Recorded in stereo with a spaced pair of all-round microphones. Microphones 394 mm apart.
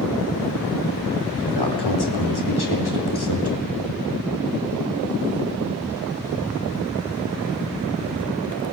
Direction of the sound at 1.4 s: 85° left.